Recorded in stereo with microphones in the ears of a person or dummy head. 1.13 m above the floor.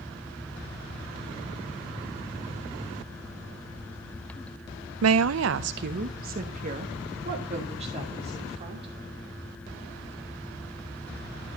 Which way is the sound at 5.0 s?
80° right.